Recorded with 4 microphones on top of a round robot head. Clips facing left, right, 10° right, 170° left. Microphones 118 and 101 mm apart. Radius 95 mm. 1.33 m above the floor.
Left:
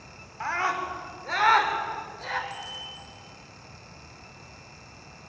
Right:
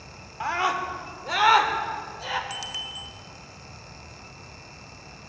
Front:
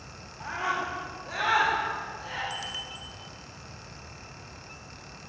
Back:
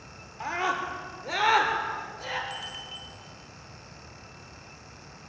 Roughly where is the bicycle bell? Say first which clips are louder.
Right 2 dB, front 2 dB; right.